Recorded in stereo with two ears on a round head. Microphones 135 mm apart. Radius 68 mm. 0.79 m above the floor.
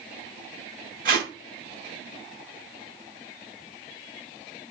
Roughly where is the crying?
No crying in this recording.